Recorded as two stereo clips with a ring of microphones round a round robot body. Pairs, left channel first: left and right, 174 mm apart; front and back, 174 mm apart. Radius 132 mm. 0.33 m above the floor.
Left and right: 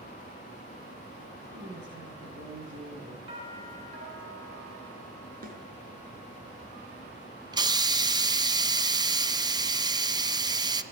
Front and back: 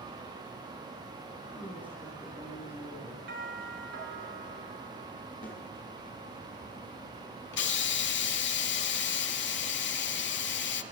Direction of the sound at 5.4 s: 55° right.